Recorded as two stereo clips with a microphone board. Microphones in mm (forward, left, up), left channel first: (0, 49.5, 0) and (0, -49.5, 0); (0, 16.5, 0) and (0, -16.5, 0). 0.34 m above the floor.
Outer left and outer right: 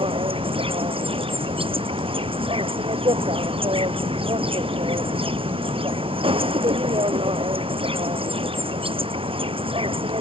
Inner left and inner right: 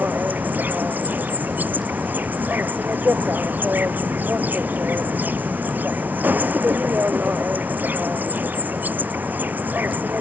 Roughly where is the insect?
Right.